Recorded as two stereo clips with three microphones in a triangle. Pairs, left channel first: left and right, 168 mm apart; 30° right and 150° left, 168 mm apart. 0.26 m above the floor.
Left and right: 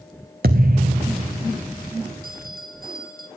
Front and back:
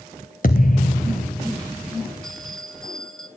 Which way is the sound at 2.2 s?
115° right.